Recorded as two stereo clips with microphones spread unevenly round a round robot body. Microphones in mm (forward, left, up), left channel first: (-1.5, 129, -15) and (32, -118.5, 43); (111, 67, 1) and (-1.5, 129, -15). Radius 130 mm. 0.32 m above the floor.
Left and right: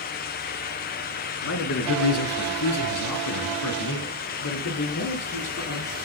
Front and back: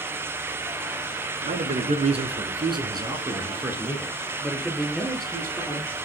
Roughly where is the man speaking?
Behind left.